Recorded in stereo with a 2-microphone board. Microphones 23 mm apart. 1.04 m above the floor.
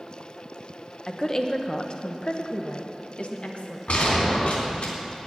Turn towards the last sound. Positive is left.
turn(degrees=65)  # may be behind; listen again after turning